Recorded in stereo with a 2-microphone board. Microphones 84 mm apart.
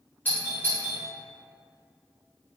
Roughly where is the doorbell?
Left.